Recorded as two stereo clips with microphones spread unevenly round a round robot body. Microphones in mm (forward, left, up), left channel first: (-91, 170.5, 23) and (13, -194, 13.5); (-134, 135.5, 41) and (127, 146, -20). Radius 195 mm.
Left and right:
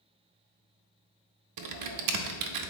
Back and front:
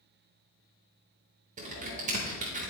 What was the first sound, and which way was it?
Typing on a keyboard, 45° right.